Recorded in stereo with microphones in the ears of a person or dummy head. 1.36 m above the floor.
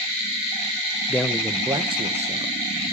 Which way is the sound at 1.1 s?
10° left (ahead or behind).